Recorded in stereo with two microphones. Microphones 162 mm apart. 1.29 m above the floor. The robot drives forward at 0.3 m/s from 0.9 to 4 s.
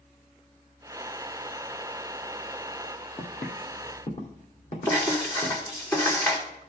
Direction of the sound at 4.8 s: 20° left (ahead or behind).